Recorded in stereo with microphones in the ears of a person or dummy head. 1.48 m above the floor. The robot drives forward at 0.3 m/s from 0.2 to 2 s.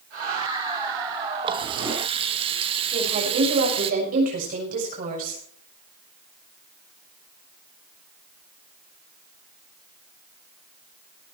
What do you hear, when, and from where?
1.4 s a running tap: 25° right (ahead or behind), 1.1 m; by 3.9 s 30° right (ahead or behind), 1.0 m
2.9 s a woman speaking: 40° right (ahead or behind), 7 m